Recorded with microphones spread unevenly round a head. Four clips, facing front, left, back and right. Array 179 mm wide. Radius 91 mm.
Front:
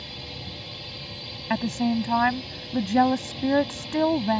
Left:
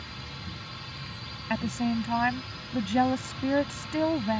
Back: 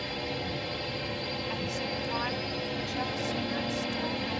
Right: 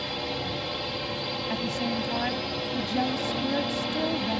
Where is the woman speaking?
10° left.